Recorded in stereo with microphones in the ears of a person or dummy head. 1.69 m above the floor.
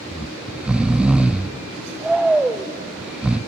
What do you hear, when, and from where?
0.1 s snoring: 5° right (ahead or behind), 0.5 m